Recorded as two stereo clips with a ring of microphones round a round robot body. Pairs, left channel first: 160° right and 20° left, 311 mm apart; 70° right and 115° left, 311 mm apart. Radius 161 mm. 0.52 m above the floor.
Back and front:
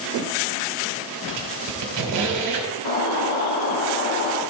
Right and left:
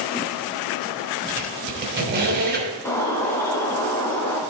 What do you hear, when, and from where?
1.3 s a squeak: 55° left, 2.5 m
2.9 s a bird: 150° right, 2.5 m